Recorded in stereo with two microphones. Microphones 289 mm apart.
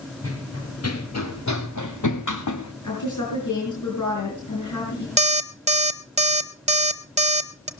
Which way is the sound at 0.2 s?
45° left (ahead or behind).